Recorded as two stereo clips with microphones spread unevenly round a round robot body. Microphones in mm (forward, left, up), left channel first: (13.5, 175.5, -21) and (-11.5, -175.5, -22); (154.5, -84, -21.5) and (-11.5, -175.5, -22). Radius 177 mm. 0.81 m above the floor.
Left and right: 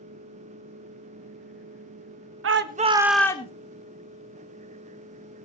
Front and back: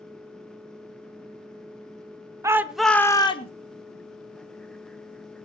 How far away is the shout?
About 1.1 m.